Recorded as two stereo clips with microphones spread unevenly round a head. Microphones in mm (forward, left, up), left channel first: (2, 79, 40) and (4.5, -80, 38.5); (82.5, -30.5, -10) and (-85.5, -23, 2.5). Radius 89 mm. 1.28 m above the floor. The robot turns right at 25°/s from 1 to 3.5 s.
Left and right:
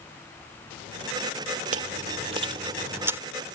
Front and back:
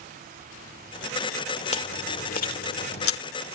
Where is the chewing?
50° right; by 3.2 s 10° right.